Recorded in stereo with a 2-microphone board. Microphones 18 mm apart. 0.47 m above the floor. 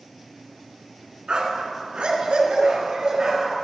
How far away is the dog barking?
About 1.5 m.